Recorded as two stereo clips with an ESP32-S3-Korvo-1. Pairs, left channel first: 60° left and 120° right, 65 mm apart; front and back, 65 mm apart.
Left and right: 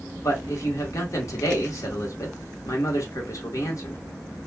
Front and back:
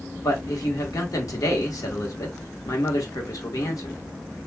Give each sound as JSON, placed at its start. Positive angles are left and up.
{"t": 0.2, "sound": "a man speaking", "azimuth_deg": 25, "distance_m": 1.1}